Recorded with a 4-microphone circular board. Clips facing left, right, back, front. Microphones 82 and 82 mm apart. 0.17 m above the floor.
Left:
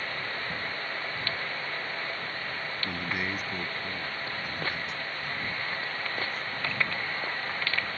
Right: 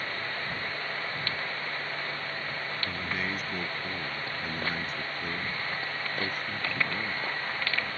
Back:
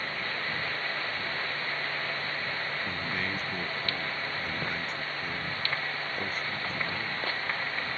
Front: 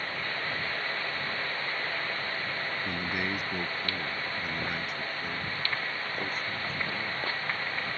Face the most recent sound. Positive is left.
turn(degrees=-95)